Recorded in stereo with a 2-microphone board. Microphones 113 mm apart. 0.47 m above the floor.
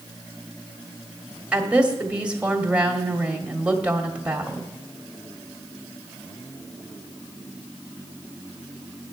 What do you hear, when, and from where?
1.5 s a woman speaking: 10° right (ahead or behind), 1.7 m